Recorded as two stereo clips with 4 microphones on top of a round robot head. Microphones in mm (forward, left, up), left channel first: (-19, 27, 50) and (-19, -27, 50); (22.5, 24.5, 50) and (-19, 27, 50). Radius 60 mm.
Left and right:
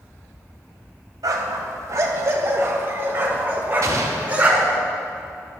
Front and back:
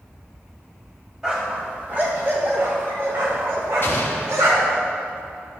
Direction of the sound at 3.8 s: 50° right.